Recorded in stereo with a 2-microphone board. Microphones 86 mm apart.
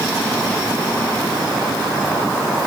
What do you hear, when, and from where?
Only background noise.